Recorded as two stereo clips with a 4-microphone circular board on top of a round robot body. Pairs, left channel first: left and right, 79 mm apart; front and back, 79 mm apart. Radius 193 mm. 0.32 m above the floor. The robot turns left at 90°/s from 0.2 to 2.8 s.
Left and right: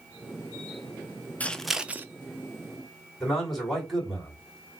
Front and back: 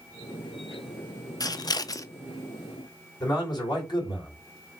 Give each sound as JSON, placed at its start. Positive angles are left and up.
{"t": 1.4, "sound": "scissors", "azimuth_deg": 25, "distance_m": 0.6}
{"t": 3.2, "sound": "a man speaking", "azimuth_deg": 0, "distance_m": 2.5}